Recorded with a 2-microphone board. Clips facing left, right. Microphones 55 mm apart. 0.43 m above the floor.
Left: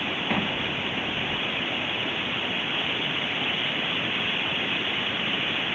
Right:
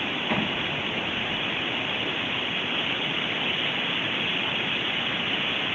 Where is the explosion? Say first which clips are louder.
Even; 15° left (ahead or behind), 4.5 m.